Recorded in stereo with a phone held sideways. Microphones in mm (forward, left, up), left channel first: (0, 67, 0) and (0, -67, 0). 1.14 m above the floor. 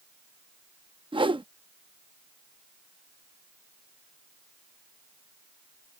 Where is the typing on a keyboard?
I don't hear typing on a keyboard.